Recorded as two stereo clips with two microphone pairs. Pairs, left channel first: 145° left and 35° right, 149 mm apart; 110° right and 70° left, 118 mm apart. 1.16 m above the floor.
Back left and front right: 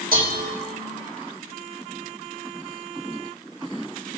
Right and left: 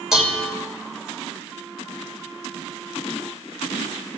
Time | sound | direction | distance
0.1 | dishes clattering | 15° right | 1.4 m